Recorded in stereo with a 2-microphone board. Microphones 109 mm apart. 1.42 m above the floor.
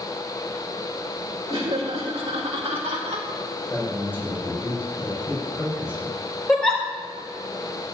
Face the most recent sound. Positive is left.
turn(degrees=5)  # may be behind; listen again after turning